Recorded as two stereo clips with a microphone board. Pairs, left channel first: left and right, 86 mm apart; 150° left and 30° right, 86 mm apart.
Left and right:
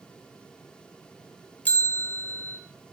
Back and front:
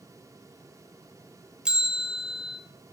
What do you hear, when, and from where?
1.6 s a bell: 40° left, 0.9 m